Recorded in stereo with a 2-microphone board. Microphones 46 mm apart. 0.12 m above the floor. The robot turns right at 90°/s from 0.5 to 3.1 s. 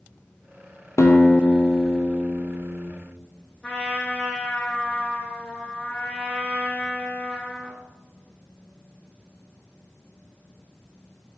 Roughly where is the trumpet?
Left.